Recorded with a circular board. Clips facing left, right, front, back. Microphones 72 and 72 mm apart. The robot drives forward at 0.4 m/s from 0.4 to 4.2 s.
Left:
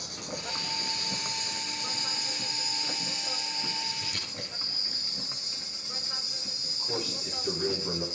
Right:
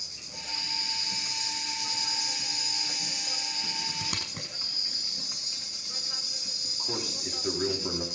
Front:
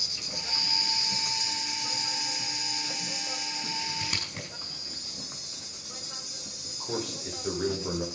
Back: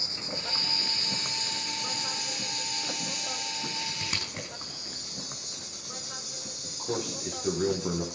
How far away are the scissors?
About 6 m.